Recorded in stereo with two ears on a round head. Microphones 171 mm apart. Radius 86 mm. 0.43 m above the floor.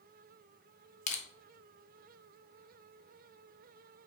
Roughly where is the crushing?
Left.